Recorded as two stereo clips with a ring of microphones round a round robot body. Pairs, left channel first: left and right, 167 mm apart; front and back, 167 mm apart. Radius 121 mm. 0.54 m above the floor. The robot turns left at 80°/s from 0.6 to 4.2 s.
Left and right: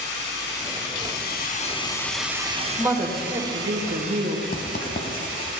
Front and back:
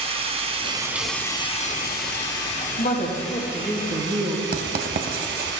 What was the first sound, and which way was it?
Running water, 125° left.